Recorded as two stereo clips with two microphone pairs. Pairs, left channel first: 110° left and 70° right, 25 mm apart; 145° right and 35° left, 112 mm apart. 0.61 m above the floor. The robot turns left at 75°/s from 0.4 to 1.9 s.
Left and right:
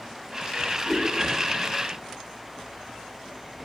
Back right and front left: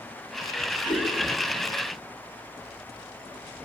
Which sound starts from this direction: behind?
A whoosh, at 0.9 s.